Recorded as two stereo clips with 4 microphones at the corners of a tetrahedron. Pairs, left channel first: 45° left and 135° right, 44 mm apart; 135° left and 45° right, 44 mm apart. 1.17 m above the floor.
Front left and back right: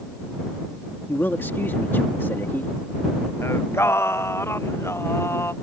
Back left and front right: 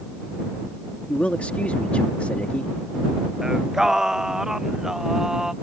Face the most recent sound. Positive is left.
turn(degrees=35)